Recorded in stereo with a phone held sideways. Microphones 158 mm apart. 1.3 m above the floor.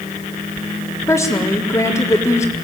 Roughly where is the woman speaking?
Centre.